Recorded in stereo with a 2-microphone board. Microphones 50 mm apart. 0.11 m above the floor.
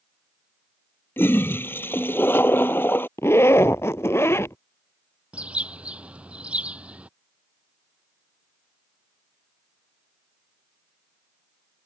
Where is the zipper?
65° left (ahead or behind).